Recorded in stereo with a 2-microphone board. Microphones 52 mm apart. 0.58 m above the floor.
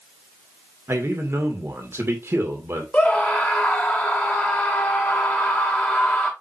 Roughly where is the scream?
Left.